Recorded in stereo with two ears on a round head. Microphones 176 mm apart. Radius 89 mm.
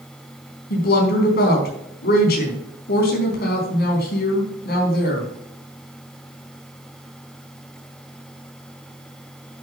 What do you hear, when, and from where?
0.7 s a woman speaking: 50° left (ahead or behind), 4 m